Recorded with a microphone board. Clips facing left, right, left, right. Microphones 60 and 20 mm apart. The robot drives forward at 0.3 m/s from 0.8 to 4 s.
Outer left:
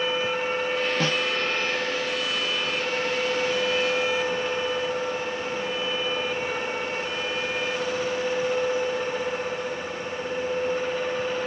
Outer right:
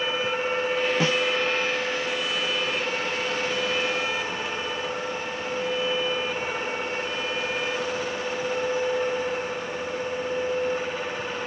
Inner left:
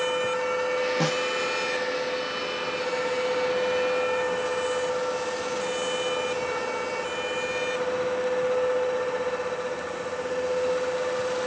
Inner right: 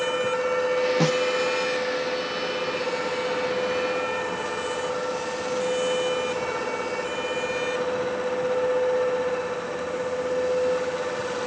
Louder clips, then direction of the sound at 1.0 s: Outer right 2 dB, inner right 3 dB; 10° right (ahead or behind).